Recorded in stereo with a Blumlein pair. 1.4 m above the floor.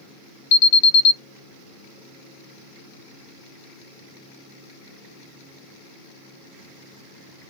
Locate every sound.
0.5 s an alarm: 50° left, 0.8 m